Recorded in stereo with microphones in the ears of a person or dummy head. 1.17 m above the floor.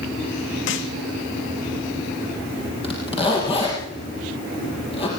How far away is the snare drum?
About 2.5 m.